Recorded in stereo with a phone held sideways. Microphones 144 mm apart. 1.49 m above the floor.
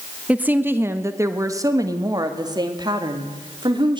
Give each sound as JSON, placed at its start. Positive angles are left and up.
{"t": 0.3, "sound": "a woman speaking", "side_deg": -10, "distance_m": 1.2}